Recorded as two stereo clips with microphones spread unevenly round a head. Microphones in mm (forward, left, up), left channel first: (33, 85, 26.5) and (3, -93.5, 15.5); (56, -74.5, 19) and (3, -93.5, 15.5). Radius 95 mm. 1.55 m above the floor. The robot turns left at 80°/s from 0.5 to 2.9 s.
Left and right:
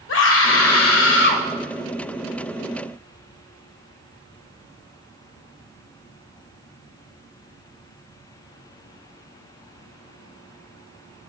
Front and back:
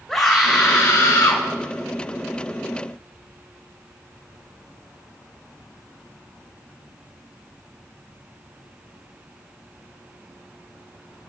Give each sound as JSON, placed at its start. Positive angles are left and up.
{"t": 0.1, "sound": "a scream", "azimuth_deg": 105, "distance_m": 1.7}